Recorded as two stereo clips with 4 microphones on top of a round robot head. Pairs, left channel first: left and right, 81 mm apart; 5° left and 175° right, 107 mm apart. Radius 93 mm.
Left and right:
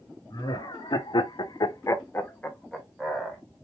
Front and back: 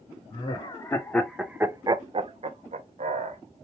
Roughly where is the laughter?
Ahead left.